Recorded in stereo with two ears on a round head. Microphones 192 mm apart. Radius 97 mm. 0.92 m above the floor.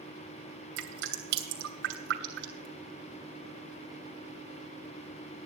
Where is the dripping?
55° right (ahead or behind), 3 m.